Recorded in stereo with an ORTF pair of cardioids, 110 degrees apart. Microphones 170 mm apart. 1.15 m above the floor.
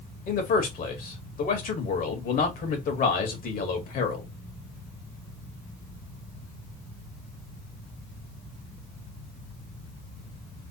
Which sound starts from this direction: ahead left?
A man speaking, at 0.3 s.